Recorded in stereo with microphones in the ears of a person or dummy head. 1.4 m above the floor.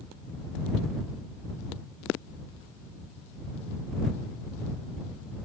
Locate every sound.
Only background noise.